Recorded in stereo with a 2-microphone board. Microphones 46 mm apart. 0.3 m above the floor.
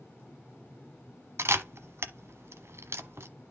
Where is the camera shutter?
70° right (ahead or behind), 1.0 m.